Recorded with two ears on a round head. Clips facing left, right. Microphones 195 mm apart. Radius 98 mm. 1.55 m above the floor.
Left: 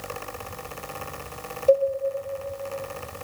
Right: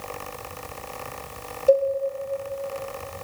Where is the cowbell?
15° right (ahead or behind), 1.0 m.